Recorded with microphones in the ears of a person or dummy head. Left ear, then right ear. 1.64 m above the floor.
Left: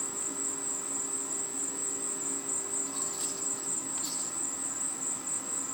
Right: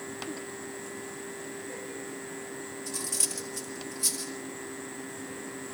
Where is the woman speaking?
I don't hear a woman speaking.